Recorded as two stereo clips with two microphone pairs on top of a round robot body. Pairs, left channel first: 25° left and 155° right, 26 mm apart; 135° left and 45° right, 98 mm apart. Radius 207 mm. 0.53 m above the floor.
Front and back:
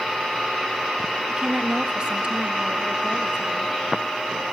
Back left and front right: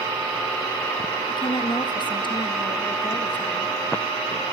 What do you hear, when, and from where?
1.3 s a woman speaking: 160° left, 1.2 m